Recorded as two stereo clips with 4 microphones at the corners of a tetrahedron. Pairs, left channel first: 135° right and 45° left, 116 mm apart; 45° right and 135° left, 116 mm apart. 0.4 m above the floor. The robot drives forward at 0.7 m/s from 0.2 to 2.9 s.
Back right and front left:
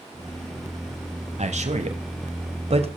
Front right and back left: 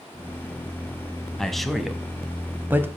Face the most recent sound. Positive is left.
turn(degrees=65)